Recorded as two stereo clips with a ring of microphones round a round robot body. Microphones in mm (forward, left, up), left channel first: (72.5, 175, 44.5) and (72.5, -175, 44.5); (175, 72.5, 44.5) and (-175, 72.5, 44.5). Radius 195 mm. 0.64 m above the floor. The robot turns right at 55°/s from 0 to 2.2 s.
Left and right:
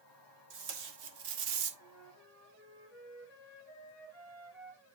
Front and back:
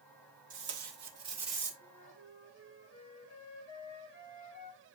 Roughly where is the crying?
No crying in this recording.